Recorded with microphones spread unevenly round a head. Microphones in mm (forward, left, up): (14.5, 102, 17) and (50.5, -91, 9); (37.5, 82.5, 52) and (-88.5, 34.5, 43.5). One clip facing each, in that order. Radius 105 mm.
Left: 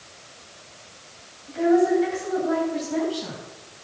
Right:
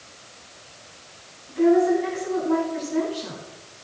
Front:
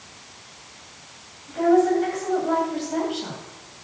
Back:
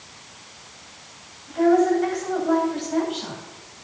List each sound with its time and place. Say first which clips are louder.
1.5 s a woman speaking: right 1 dB, even; 105° left, 10 m